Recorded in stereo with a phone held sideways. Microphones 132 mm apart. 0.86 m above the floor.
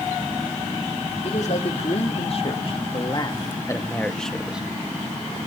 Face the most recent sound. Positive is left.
turn(degrees=-10)  # may be behind; listen again after turning